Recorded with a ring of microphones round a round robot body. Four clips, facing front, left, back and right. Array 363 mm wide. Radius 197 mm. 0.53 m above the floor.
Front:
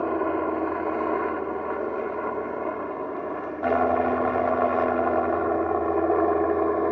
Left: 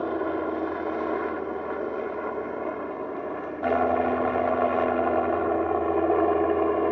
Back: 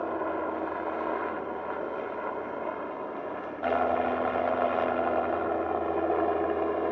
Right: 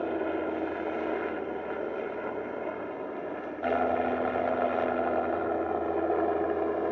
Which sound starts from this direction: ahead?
A helicopter, at 0.0 s.